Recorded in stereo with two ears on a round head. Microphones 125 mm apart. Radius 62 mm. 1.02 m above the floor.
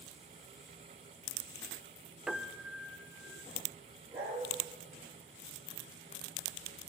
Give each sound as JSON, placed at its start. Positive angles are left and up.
{"t": 2.3, "sound": "a piano", "side_deg": -5, "distance_m": 0.7}
{"t": 4.1, "sound": "a dog barking", "side_deg": -15, "distance_m": 5.0}